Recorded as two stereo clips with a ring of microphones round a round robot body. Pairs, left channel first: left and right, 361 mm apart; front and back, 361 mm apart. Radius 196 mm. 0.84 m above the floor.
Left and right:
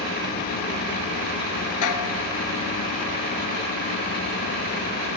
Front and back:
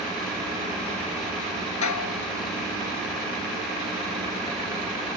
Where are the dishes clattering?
40° left.